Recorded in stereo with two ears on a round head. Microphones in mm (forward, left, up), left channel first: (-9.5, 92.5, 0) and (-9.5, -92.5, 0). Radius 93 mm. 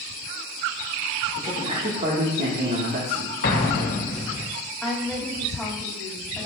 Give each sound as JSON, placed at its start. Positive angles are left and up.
{"t": 1.4, "sound": "a man speaking", "side_deg": -35, "distance_m": 2.0}
{"t": 3.4, "sound": "an explosion", "side_deg": 45, "distance_m": 1.4}
{"t": 4.8, "sound": "a woman speaking", "side_deg": 0, "distance_m": 3.0}